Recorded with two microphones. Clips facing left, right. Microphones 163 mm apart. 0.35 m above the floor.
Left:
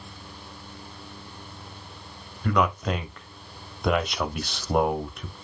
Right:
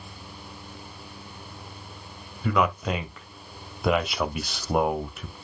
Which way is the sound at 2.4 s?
5° right (ahead or behind).